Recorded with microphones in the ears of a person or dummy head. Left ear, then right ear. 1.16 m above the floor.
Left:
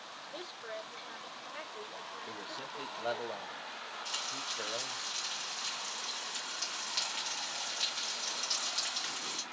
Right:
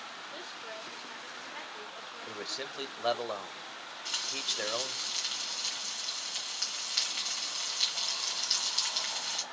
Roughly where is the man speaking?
Right.